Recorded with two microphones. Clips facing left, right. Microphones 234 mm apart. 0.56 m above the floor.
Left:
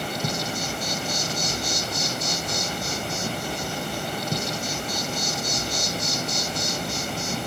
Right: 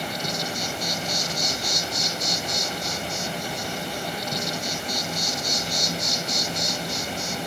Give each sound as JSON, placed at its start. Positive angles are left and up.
{"t": 0.0, "sound": "an insect", "side_deg": 55, "distance_m": 2.0}